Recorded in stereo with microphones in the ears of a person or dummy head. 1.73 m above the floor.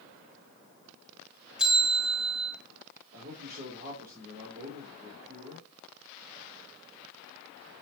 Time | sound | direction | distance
1.6 | a bell | 5° right (ahead or behind) | 2.5 m
3.1 | a man speaking | 45° right (ahead or behind) | 4.5 m